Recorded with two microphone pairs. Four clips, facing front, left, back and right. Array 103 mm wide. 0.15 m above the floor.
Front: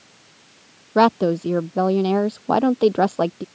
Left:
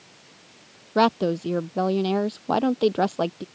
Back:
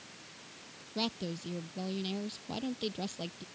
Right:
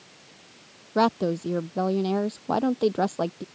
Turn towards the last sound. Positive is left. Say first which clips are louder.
# left 2 dB, front 21 dB
turn(degrees=10)